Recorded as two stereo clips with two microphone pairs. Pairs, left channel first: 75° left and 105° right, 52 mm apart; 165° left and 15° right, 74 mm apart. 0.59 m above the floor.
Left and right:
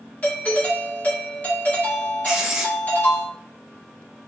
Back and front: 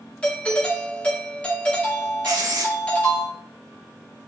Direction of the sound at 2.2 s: 25° right.